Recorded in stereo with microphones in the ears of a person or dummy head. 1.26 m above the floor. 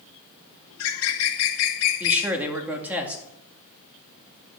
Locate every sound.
0.7 s a bird: 75° left (ahead or behind), 1.3 m
2.0 s a man speaking: 5° right (ahead or behind), 2 m